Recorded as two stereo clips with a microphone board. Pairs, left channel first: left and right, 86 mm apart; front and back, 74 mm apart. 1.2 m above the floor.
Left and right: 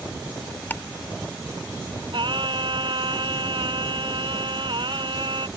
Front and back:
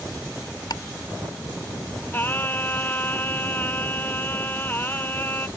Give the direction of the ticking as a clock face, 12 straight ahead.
11 o'clock.